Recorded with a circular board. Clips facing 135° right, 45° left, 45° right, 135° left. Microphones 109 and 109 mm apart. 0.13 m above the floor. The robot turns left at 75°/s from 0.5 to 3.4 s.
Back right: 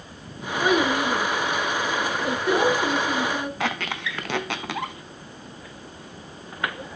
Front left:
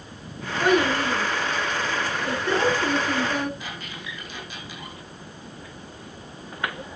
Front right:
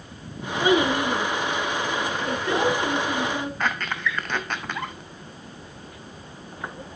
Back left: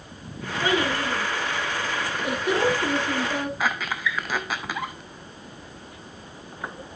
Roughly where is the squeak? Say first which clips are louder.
Back right 9 dB, even; behind right.